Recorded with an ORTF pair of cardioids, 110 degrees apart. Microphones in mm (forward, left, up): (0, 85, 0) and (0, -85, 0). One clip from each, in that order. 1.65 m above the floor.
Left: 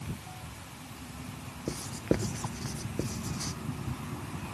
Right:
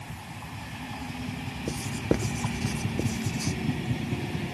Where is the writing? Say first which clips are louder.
Right 2 dB; 10° right.